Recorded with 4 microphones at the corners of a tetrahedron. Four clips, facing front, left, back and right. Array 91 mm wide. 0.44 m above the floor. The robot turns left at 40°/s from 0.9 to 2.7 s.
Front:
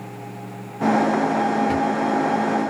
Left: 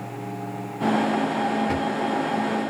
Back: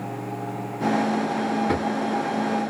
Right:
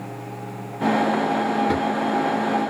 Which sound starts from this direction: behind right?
A drawer, at 1.7 s.